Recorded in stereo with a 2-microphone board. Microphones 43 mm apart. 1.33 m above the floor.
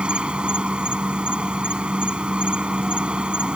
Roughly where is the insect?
Right.